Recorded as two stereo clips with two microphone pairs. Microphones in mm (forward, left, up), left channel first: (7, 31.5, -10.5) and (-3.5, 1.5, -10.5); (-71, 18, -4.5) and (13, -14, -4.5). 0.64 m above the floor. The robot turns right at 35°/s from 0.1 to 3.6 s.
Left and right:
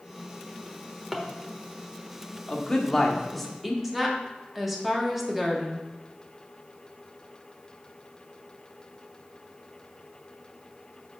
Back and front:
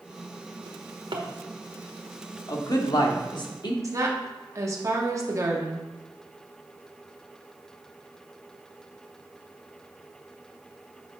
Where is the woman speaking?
25° right, 1.3 m.